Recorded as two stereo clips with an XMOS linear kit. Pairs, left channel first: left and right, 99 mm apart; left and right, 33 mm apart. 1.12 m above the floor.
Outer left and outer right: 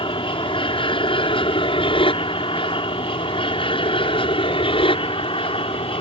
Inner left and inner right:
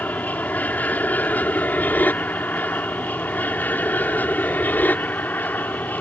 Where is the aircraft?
60° left (ahead or behind); by 6.0 s 65° left (ahead or behind).